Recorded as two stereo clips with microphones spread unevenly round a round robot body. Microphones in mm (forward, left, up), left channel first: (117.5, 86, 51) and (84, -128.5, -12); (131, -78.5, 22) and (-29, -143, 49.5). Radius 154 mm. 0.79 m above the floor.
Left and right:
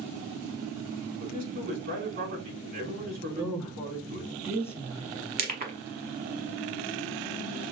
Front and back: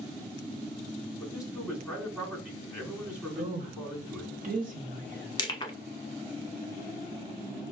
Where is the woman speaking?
155° right, 0.9 m.